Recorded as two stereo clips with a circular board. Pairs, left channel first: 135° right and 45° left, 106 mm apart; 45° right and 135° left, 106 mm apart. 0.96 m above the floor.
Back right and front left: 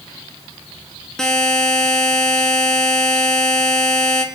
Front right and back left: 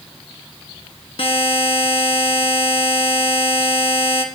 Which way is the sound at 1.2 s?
50° right.